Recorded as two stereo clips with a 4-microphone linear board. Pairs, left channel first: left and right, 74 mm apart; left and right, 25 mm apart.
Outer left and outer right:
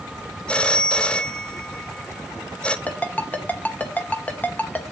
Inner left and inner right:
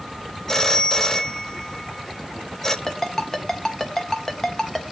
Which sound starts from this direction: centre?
A phone ringing, at 0.5 s.